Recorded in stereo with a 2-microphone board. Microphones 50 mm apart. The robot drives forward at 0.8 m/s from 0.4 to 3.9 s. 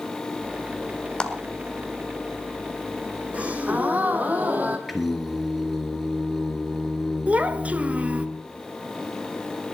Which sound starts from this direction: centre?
Singing, at 4.9 s.